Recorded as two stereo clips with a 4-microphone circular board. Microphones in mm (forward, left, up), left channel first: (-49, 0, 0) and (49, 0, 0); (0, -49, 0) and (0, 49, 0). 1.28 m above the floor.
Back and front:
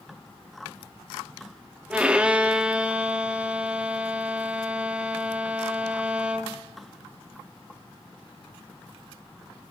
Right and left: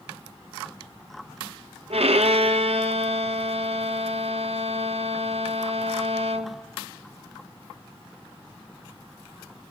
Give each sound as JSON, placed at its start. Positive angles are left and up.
{"t": 1.9, "sound": "a violin", "azimuth_deg": 80, "distance_m": 0.9}